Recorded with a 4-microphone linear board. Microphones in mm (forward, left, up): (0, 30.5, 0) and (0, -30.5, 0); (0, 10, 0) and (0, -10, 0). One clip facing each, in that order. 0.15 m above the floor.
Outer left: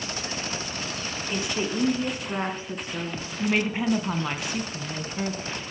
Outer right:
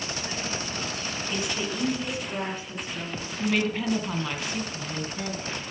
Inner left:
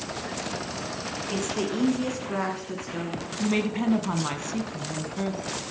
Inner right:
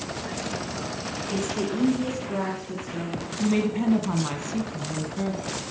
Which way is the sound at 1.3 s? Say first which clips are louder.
Outer left 3 dB, inner right 1 dB; 25° left (ahead or behind).